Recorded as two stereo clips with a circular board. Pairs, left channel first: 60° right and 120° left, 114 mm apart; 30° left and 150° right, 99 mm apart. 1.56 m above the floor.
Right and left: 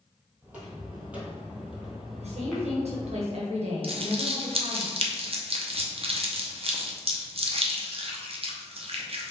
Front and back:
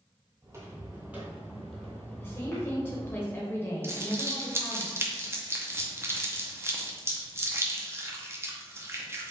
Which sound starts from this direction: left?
A woman speaking, at 2.2 s.